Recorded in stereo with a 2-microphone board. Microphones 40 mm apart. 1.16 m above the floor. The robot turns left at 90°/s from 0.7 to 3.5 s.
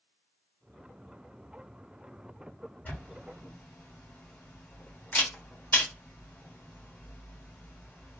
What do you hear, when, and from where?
2.9 s a camera shutter: 45° left (ahead or behind), 1.2 m; by 8.2 s 40° left (ahead or behind), 1.2 m